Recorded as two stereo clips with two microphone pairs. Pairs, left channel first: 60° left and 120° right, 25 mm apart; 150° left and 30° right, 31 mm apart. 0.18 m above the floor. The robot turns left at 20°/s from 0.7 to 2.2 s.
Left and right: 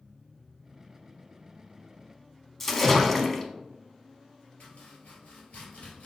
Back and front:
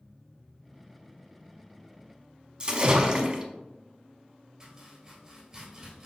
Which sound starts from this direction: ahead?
A splash, at 2.6 s.